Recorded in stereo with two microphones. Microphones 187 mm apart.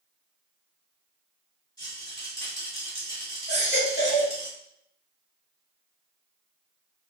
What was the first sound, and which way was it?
A rattle, 25° left (ahead or behind).